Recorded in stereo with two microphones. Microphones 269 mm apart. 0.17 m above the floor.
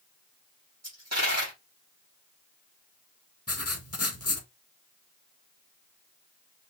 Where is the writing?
70° left (ahead or behind), 0.9 m.